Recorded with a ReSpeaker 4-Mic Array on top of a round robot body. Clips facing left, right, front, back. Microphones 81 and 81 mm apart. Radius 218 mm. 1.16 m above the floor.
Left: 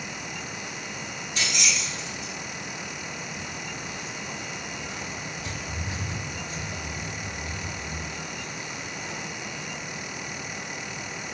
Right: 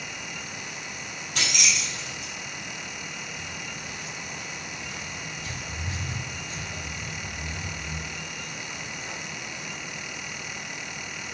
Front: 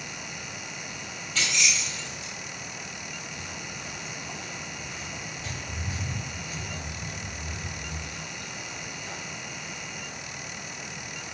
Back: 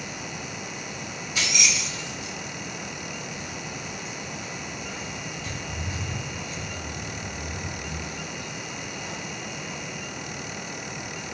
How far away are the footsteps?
About 4 m.